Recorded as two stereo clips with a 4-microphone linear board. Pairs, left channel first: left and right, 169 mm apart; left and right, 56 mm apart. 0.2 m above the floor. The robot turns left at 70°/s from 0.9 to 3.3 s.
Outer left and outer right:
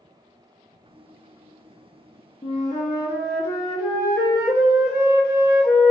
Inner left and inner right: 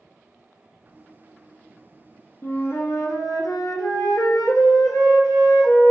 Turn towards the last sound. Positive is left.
turn(degrees=85)